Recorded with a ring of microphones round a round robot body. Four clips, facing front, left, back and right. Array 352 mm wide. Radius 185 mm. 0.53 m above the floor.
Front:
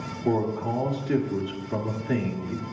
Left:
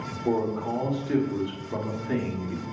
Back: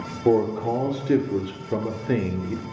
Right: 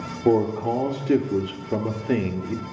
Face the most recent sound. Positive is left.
turn(degrees=-130)